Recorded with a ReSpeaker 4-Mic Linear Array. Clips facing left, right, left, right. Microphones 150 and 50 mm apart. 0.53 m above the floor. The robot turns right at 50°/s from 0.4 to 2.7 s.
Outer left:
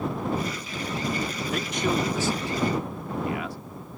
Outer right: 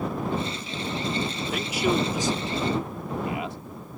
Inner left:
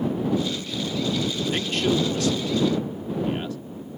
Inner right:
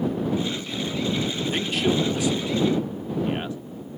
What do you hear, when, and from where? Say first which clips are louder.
1.5 s a man speaking: outer right 2 dB, even; centre (ahead or behind); by 3.6 s 20° right (ahead or behind)